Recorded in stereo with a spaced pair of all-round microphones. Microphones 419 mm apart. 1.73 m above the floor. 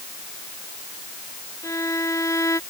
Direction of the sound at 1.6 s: 5° left (ahead or behind).